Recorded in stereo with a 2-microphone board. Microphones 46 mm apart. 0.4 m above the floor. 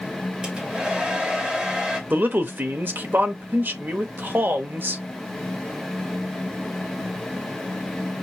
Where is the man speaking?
45° right (ahead or behind), 1.0 m.